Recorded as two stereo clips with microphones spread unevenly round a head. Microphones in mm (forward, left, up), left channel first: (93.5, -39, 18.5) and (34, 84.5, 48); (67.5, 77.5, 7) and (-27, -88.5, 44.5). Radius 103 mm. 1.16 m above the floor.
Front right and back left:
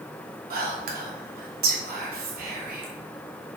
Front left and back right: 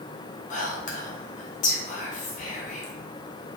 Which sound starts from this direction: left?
Whispering, at 0.5 s.